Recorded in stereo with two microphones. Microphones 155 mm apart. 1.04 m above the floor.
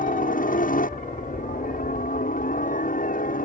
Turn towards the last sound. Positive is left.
turn(degrees=65)  # may be behind; listen again after turning